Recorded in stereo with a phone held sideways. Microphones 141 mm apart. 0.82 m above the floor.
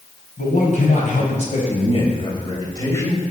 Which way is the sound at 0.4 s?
70° left (ahead or behind).